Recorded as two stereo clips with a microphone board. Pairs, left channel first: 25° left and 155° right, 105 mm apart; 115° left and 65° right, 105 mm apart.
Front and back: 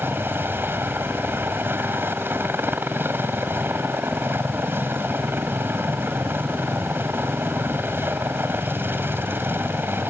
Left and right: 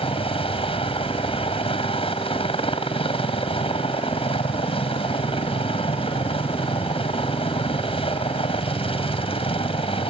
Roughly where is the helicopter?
Behind left.